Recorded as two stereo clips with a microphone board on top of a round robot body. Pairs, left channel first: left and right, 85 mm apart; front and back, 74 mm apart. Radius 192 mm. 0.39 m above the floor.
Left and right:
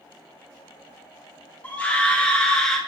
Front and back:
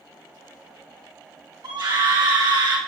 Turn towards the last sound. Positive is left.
turn(degrees=170)